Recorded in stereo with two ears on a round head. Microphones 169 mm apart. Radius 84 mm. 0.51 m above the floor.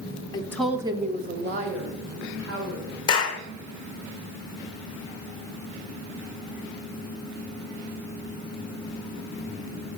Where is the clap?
25° left (ahead or behind), 1.7 m.